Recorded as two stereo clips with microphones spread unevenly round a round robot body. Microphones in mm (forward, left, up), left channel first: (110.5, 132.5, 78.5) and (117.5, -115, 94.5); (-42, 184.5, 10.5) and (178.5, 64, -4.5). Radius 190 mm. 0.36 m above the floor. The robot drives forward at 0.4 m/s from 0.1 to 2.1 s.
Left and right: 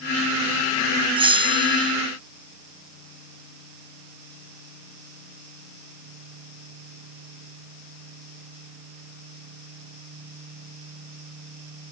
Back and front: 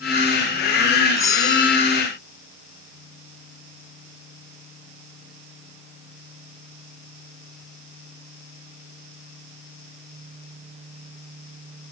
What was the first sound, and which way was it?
A bell, 135° right.